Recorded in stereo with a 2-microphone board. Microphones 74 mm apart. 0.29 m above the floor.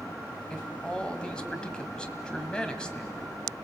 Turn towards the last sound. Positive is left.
turn(degrees=10)  # may be behind; listen again after turning